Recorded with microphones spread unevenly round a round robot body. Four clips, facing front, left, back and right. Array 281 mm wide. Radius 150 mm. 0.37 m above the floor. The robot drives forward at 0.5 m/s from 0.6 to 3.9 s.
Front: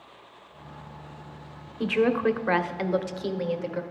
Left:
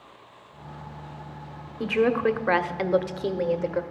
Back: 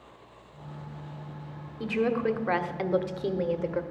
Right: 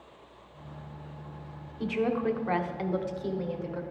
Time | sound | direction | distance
1.8 | a woman speaking | 50° left | 1.3 m